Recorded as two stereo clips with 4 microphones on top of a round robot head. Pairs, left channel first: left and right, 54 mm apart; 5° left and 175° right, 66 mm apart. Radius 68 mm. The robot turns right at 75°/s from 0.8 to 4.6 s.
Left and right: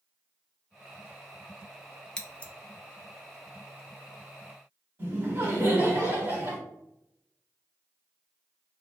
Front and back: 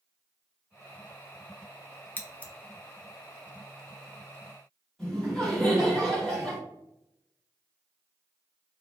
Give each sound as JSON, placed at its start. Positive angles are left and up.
{"t": 2.2, "sound": "scissors", "azimuth_deg": 30, "distance_m": 0.6}
{"t": 5.0, "sound": "laughter", "azimuth_deg": -75, "distance_m": 1.6}